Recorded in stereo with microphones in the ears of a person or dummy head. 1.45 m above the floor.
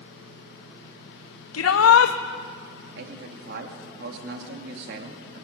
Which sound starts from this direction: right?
A man speaking, at 3.0 s.